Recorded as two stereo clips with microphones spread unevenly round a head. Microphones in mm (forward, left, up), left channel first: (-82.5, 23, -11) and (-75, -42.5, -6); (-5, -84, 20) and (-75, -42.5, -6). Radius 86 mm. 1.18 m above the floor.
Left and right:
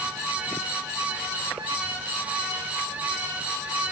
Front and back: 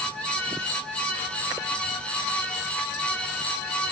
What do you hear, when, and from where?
Only background noise.